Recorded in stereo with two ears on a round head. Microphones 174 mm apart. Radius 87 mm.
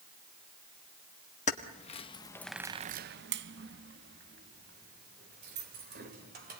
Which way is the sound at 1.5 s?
40° left (ahead or behind).